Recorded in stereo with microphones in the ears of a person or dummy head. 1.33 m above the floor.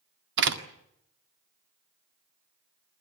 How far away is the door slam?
About 1.8 m.